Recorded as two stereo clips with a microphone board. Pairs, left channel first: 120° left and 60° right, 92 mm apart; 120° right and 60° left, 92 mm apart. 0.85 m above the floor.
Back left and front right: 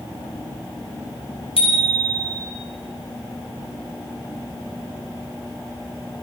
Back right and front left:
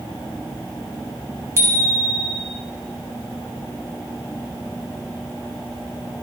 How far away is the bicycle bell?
About 4 m.